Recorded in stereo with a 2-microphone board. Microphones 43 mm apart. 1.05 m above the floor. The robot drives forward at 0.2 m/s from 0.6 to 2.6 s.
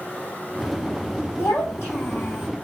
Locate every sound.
1.4 s a child speaking: 80° left, 1.0 m